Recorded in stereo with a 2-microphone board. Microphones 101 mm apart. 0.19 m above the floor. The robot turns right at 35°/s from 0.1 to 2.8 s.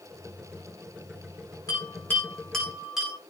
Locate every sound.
1.7 s a bell: 35° left (ahead or behind), 8.5 m; by 3.1 s 5° right (ahead or behind), 8.5 m